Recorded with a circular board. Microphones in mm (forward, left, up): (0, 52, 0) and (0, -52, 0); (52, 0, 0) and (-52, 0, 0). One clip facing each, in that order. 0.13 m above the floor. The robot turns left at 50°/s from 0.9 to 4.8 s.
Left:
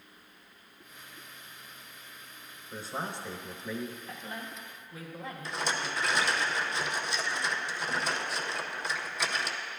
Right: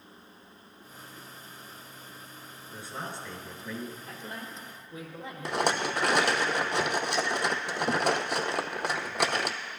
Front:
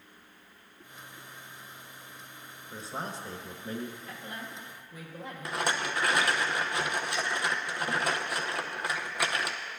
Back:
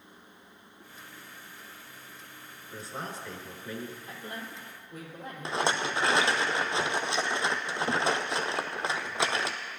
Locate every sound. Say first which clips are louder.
2.7 s a man speaking: left 2 dB, front 1 dB; 55° left, 1.8 m; by 4.0 s 10° right, 1.8 m
4.1 s a woman speaking: even, back 1 dB; 120° right, 4 m; by 6.5 s 155° right, 4 m
5.5 s a rattle: right 7 dB, back 3 dB; 115° right, 0.7 m